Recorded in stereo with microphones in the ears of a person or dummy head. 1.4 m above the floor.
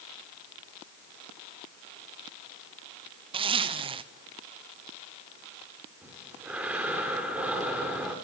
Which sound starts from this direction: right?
A zipper, at 3.3 s.